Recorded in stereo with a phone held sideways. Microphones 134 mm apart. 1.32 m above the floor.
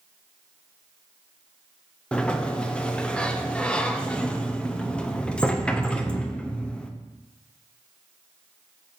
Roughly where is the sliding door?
Centre.